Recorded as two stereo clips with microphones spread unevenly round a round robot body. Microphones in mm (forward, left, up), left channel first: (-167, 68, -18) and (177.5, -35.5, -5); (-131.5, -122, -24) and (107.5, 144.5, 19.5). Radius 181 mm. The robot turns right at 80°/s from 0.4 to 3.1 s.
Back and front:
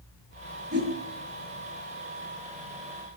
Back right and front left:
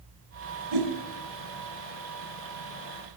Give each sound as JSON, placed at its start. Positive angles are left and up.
{"t": 0.7, "sound": "a whoosh", "azimuth_deg": 40, "distance_m": 4.0}